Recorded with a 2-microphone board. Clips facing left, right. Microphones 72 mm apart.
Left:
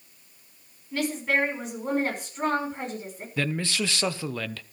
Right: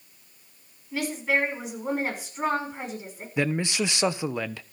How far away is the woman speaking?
About 6 m.